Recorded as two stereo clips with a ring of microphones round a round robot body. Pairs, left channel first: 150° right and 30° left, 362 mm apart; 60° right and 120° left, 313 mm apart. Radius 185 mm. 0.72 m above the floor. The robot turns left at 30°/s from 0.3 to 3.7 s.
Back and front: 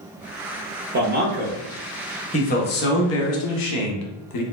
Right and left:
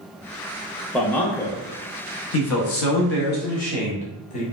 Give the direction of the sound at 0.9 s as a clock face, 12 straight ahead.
11 o'clock.